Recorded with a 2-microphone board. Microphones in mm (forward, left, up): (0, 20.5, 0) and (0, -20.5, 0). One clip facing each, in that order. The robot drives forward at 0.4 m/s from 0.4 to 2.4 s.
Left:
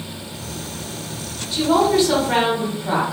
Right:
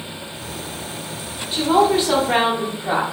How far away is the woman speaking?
About 0.8 m.